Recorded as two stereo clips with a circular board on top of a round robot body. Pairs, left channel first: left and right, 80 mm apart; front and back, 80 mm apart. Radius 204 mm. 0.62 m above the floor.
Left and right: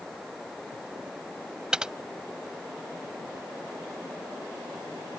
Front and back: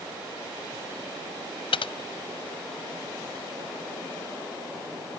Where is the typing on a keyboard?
10° right.